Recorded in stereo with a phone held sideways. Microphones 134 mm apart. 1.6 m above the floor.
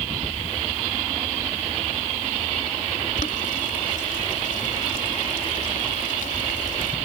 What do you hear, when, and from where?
3.2 s boiling: 80° left